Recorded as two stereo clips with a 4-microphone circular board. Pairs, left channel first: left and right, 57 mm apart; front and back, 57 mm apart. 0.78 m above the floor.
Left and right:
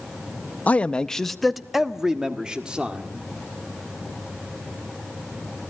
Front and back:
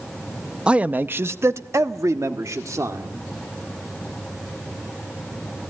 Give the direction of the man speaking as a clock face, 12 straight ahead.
8 o'clock.